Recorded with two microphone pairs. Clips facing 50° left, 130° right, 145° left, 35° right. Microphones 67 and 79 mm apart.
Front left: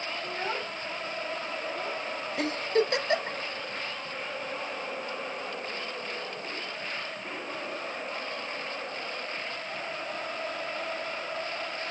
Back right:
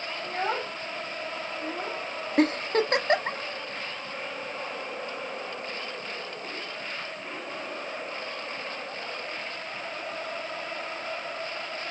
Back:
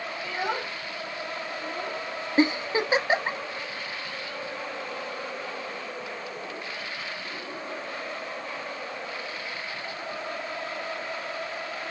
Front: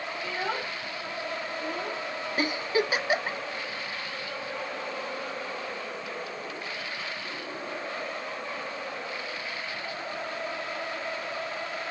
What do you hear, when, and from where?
0.2 s a child speaking: 135° right, 0.9 m; by 2.0 s 120° right, 1.7 m
2.4 s a giggle: 155° right, 0.8 m